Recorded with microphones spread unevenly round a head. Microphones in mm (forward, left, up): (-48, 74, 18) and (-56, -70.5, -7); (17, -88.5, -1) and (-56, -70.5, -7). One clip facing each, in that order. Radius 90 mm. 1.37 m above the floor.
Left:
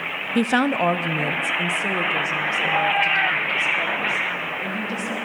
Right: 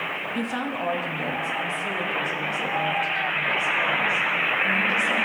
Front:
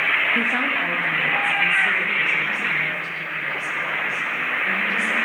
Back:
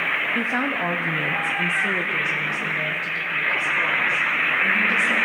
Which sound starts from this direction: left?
A woman speaking, at 0.3 s.